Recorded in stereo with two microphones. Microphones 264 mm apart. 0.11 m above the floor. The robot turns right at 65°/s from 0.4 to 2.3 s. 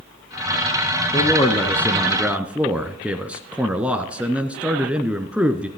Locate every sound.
1.1 s a man speaking: 15° left (ahead or behind), 1.1 m; by 5.7 s 5° right (ahead or behind), 1.1 m